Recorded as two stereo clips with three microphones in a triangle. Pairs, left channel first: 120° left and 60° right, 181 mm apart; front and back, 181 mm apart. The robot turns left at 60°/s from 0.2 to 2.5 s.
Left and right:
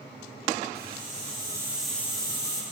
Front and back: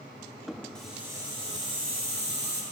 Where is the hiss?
85° right, 1.8 m; by 2.6 s 170° left, 1.8 m.